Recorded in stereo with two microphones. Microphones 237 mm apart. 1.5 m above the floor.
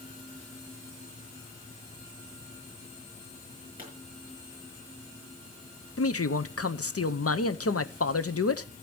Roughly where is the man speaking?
Left.